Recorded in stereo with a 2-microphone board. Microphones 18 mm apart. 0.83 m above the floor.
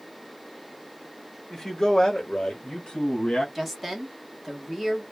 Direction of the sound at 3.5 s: Centre (ahead or behind).